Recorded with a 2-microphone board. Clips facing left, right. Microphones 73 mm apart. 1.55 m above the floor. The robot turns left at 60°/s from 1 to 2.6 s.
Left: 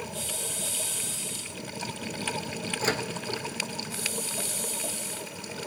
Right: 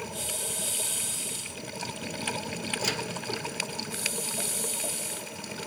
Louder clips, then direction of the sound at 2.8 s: Left 6 dB; 35° left (ahead or behind).